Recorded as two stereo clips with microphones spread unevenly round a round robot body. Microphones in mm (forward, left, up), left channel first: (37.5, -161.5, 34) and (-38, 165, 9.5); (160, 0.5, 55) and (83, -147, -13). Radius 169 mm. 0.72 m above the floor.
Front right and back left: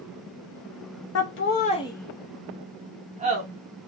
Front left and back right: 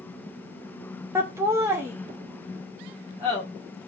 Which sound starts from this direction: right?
Laughter, at 1.1 s.